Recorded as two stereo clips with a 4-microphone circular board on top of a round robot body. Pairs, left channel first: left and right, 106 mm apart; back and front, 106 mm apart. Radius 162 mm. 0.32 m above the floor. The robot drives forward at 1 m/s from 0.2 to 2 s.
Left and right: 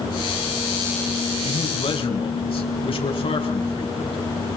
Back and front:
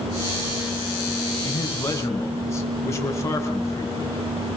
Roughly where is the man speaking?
Left.